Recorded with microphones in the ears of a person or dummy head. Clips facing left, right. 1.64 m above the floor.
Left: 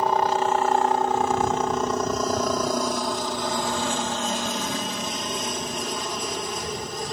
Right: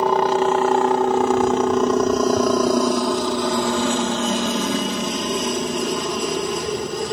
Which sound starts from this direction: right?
A helicopter, at 0.0 s.